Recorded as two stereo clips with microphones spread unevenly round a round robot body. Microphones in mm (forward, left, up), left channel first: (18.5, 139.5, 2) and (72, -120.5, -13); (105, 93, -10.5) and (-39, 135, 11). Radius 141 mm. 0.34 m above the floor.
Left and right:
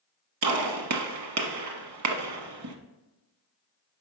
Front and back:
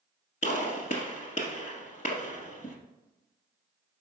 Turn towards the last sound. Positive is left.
turn(degrees=-85)